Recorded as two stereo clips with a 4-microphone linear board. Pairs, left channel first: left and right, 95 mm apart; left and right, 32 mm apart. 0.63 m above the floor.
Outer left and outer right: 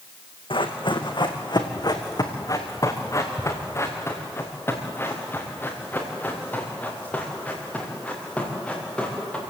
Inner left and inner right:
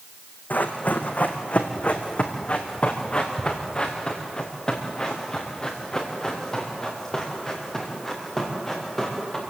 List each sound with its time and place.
0.5 s running footsteps: 65° left (ahead or behind), 2.5 m; by 9.4 s 10° left (ahead or behind), 7 m